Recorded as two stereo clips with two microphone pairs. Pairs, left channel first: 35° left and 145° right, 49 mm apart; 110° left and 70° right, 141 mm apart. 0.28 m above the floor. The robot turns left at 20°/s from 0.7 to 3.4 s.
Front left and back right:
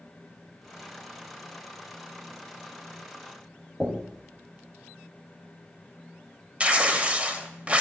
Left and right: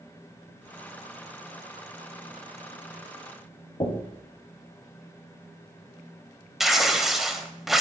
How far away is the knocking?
About 1.3 m.